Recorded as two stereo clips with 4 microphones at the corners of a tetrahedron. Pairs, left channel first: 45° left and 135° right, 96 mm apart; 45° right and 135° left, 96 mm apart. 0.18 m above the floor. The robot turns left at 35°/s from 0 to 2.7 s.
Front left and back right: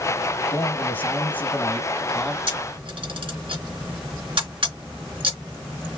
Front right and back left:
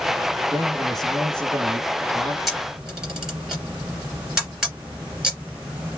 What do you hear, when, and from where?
0.5 s a man speaking: 50° left, 1.2 m; by 2.4 s 20° right, 1.2 m
2.5 s a camera shutter: 135° right, 3 m; by 6.0 s 145° right, 3 m